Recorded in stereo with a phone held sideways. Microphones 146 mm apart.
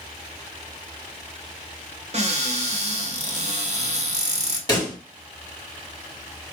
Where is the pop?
25° left (ahead or behind), 2 m.